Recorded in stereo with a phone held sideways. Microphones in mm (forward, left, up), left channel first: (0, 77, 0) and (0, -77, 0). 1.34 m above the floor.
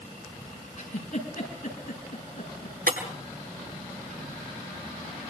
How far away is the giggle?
About 7 m.